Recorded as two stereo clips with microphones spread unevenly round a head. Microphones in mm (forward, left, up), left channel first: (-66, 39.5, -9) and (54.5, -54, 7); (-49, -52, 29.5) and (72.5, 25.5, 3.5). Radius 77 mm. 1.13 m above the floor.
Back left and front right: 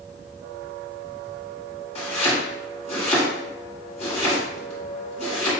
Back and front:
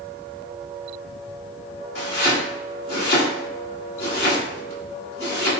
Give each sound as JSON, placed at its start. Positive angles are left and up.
{"t": 1.9, "sound": "chopping", "azimuth_deg": -175, "distance_m": 1.4}